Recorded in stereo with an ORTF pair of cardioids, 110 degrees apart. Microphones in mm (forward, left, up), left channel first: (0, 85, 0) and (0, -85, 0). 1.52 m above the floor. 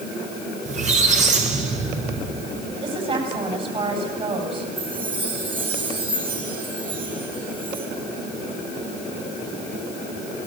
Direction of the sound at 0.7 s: 45° right.